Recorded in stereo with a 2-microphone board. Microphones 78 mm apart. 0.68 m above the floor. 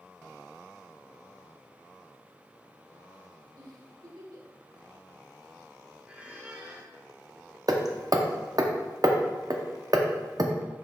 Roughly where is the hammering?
Right.